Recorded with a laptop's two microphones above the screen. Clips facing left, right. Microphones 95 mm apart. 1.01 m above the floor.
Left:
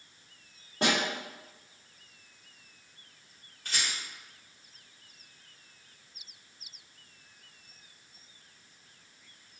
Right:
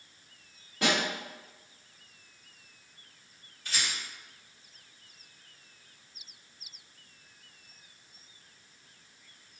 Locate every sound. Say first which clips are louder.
0.8 s a snare drum: even; 35° left (ahead or behind), 1.2 m
3.6 s a rattle: even; 50° left (ahead or behind), 1.1 m